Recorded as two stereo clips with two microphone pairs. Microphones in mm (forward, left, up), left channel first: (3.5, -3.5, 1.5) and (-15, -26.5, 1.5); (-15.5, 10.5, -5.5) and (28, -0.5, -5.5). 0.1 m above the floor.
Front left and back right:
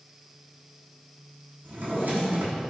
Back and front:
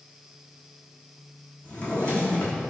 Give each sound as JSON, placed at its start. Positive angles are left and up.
{"t": 1.6, "sound": "a drawer", "azimuth_deg": -130, "distance_m": 1.3}